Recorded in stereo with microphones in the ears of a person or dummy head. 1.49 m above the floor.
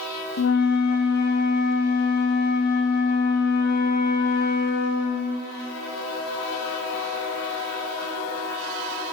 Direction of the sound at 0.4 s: 60° left (ahead or behind).